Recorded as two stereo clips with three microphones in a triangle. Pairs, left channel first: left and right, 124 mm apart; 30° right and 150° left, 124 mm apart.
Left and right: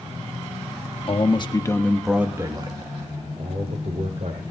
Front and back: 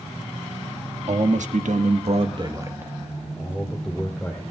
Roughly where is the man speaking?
Behind left.